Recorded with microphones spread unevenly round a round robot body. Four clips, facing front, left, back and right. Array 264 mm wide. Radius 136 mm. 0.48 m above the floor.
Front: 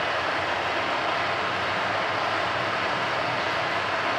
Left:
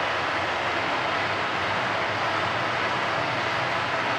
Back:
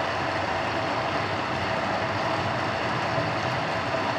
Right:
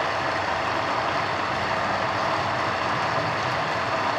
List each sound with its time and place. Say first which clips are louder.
0.0 s running water: right 1 dB, even; 165° right, 1.4 m